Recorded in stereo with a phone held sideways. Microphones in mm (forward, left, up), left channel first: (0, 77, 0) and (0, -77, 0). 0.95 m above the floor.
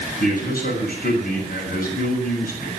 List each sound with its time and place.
0.2 s a man speaking: 85° left, 7 m